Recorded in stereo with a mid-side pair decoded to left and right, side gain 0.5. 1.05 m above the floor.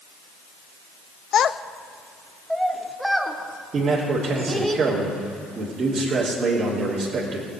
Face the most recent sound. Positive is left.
turn(degrees=-45)